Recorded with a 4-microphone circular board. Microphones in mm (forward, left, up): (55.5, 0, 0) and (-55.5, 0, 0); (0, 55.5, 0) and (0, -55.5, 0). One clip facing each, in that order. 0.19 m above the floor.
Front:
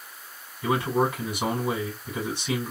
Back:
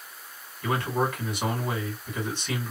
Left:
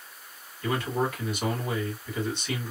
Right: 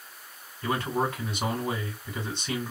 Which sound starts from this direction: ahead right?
A man speaking, at 0.6 s.